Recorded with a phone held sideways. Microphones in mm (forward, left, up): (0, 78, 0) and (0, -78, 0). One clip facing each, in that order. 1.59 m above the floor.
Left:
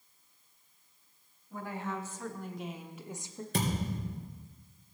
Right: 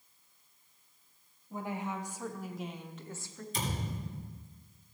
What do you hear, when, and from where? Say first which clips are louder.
1.5 s a woman speaking: right 1 dB; 20° right (ahead or behind), 1.5 m; by 3.4 s 25° left (ahead or behind), 0.9 m
3.5 s a thud: left 5 dB; 65° left (ahead or behind), 3.5 m